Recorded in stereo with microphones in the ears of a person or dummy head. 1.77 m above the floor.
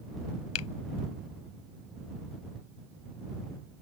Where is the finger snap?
85° left.